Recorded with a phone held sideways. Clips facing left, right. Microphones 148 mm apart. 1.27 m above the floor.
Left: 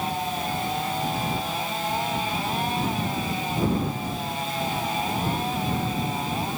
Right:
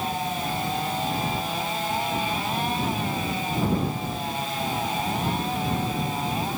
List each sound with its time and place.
Only background noise.